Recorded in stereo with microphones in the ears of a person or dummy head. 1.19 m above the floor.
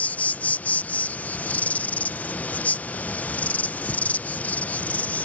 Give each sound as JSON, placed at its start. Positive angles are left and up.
{"t": 0.0, "sound": "an insect", "side_deg": 10}